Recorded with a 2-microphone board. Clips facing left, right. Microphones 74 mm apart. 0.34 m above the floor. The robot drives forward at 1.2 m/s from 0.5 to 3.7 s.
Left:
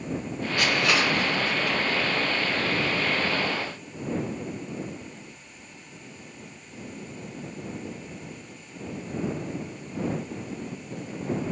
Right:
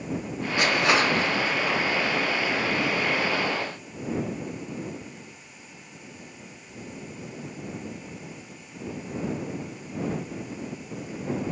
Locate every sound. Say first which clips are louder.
0.6 s crushing: right 2 dB; 20° right (ahead or behind), 3.5 m; by 1.8 s 35° right (ahead or behind), 2 m